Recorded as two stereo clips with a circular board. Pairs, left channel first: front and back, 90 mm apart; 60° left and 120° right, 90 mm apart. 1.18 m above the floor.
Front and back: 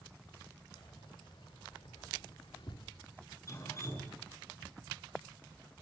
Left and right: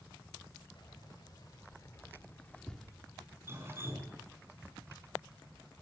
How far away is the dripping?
About 5.5 m.